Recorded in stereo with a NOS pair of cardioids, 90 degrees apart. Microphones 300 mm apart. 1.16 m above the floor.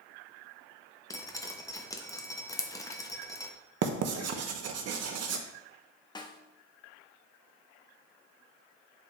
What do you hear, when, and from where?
1.1 s dripping: 10° left, 1.1 m
3.8 s writing: 60° right, 1.0 m
6.2 s a snare drum: 15° left, 1.1 m